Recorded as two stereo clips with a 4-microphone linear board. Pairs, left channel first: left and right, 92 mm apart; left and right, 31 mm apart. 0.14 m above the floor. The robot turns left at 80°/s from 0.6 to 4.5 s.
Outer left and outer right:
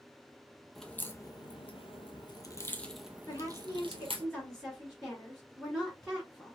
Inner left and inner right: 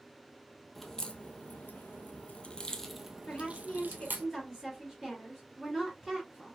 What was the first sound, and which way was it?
A crack, centre (ahead or behind).